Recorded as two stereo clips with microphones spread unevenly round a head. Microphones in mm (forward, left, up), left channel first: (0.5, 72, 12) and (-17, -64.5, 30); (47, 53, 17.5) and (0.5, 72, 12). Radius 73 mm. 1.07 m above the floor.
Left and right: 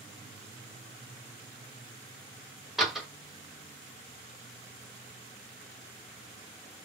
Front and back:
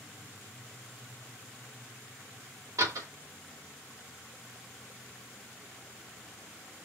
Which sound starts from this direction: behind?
A door slam, at 2.8 s.